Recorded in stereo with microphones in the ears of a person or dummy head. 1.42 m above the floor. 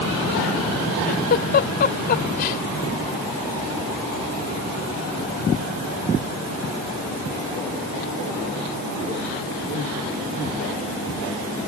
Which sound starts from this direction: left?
A giggle, at 1.1 s.